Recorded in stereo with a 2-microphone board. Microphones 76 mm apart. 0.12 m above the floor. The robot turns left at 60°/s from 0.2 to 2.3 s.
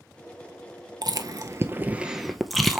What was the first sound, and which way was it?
Chewing, 60° right (ahead or behind).